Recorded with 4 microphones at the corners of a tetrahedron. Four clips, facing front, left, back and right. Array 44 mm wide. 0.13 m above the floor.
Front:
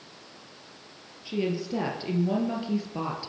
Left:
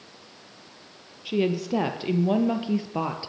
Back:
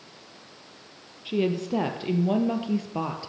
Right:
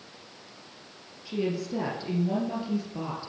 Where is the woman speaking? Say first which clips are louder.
Left 5 dB, back 3 dB; 120° left, 4 m; by 3.3 s 110° left, 3.5 m.